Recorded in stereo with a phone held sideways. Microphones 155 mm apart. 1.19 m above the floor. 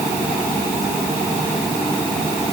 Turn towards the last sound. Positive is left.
No sound to turn to.